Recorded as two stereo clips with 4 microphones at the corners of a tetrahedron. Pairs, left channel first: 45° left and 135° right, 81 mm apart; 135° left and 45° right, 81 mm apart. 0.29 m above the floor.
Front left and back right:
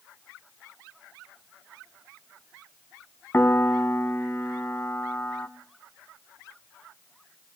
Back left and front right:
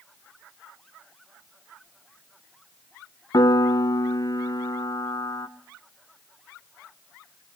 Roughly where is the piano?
Left.